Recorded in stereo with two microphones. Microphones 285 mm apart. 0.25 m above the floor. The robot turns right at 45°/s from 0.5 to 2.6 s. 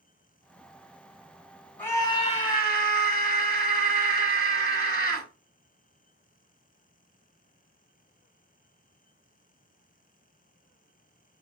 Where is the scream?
10° left, 1.9 m; by 5.3 s 45° left, 1.9 m.